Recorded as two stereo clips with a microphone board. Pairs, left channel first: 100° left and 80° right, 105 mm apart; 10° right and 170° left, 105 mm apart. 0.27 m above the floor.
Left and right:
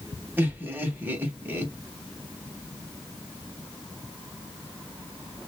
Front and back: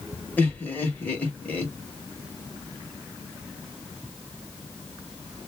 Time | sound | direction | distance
0.4 | laughter | 55° right | 0.9 m